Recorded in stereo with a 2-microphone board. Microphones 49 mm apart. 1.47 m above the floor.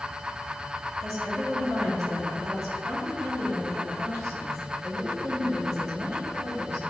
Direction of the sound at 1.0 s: 80° right.